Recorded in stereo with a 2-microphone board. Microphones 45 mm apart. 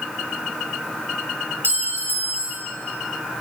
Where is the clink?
55° right (ahead or behind), 3 m.